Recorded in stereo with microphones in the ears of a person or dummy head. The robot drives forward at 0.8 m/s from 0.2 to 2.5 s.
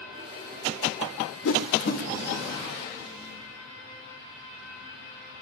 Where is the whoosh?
65° left (ahead or behind), 0.8 m; by 2.0 s 50° left (ahead or behind), 1.0 m.